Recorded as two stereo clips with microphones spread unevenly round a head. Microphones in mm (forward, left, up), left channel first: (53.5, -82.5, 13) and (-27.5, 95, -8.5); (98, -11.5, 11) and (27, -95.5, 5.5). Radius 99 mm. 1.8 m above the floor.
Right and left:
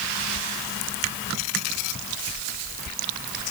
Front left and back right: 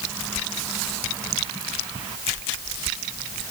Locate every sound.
Only background noise.